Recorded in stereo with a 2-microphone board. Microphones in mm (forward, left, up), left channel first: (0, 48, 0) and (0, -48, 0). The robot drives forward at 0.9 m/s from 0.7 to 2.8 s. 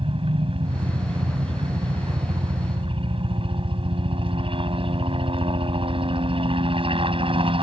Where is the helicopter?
65° right (ahead or behind); by 7.6 s 60° right (ahead or behind).